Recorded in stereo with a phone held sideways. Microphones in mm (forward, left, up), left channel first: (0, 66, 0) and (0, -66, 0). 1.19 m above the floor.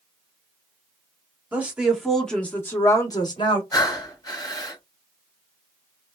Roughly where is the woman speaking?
Centre.